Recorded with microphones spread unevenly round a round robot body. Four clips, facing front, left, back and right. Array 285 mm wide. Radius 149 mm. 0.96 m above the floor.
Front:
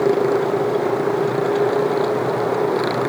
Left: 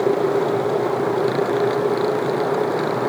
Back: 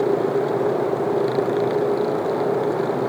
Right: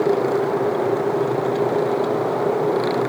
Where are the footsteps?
No footsteps in this recording.